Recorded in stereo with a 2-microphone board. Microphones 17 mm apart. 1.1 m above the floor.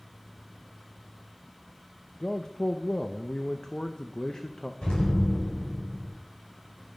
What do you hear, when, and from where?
2.2 s a man speaking: 35° left (ahead or behind), 0.9 m
4.8 s an explosion: 85° left, 5.5 m